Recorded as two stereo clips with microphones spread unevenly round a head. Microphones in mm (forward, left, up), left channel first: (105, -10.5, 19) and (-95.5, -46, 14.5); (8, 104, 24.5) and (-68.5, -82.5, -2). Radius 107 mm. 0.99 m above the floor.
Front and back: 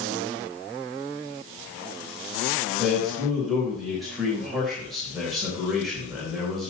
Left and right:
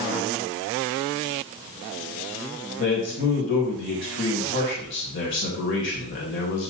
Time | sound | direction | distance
2.8 | a man speaking | 100° left | 3.5 m